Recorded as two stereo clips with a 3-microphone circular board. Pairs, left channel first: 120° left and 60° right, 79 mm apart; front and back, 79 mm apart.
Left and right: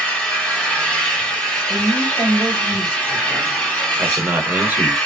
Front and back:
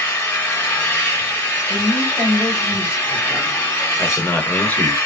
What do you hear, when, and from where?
0.0 s an engine running: 50° left, 1.3 m
1.7 s a woman speaking: 120° left, 1.4 m
4.0 s a man speaking: 40° right, 1.0 m